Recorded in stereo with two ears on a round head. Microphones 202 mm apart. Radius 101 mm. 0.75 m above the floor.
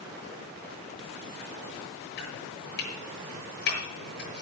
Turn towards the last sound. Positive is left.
turn(degrees=50)  # may be behind; listen again after turning